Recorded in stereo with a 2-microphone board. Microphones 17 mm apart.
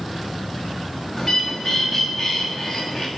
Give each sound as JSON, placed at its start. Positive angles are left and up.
{"t": 1.2, "sound": "a bird", "side_deg": 0, "distance_m": 4.0}